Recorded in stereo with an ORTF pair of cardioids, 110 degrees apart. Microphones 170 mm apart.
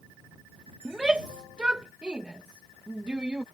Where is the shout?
5° right.